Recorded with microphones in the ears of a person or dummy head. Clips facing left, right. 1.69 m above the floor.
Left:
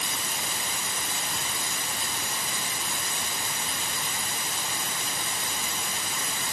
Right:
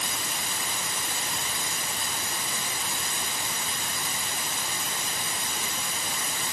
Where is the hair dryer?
I don't hear a hair dryer.